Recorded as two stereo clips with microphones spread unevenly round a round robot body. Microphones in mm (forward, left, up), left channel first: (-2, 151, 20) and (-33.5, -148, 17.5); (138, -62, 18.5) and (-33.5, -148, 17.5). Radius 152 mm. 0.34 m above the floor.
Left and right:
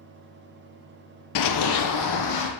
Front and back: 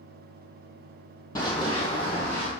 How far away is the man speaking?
I don't hear a man speaking.